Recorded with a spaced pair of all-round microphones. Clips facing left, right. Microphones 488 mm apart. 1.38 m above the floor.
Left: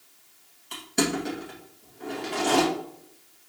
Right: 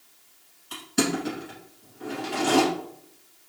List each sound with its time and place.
0.7 s crushing: 25° right (ahead or behind), 2.0 m